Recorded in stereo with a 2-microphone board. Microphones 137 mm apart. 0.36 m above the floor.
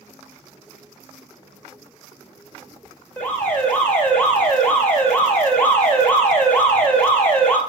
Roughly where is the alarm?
Centre.